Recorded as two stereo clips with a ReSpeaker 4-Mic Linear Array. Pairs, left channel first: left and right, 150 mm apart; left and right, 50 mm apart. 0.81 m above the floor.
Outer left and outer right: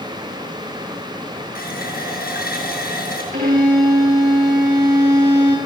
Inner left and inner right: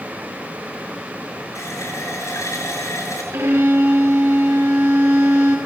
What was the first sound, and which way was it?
A running tap, 85° left.